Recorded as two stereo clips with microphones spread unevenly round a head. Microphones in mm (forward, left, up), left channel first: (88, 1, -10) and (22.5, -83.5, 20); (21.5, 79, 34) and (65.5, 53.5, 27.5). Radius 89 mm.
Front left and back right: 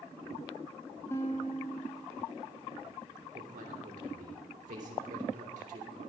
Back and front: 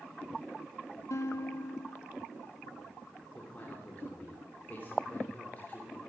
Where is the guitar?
130° left, 0.9 m.